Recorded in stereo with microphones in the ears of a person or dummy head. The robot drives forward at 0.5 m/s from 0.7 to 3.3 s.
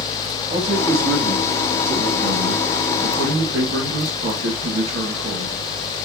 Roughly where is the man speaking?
Right.